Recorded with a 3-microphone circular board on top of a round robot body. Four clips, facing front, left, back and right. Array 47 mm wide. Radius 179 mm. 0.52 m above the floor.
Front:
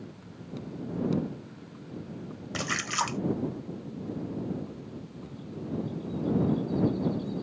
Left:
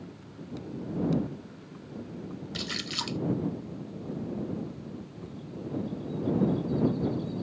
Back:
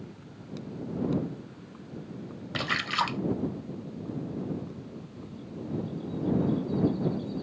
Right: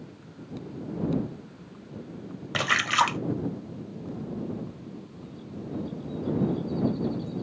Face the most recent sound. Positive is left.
turn(degrees=-95)